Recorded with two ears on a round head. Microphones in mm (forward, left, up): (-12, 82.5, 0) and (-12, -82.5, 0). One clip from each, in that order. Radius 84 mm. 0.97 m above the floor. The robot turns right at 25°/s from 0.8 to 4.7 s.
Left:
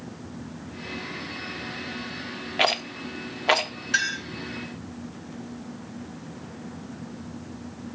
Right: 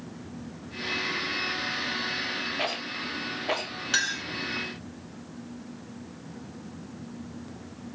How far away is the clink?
About 2.5 m.